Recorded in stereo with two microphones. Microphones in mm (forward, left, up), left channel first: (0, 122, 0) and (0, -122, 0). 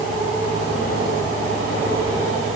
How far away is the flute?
No flute in this recording.